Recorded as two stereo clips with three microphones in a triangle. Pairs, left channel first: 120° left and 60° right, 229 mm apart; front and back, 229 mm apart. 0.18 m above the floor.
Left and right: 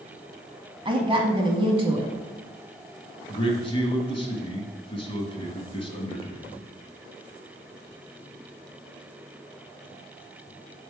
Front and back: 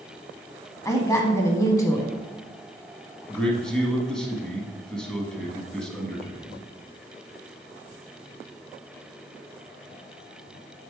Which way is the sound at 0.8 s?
50° right.